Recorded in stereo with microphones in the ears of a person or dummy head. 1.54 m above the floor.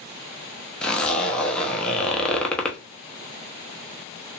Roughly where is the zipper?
Centre.